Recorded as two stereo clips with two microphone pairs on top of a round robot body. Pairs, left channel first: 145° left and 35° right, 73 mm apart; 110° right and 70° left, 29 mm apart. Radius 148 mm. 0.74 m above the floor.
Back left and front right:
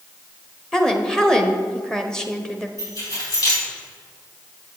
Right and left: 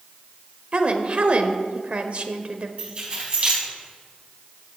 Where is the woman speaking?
65° left, 1.4 m.